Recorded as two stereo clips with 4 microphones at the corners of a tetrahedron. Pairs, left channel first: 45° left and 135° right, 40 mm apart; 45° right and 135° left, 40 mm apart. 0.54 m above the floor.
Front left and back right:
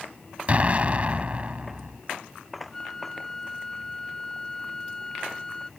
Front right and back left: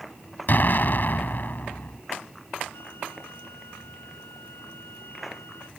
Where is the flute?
30° right.